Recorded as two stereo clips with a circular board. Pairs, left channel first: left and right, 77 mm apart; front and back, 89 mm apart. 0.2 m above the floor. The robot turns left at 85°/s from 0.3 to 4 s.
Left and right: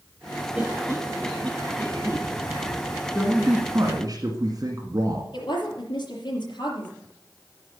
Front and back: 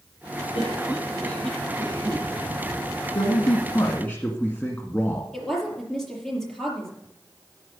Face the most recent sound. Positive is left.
turn(degrees=85)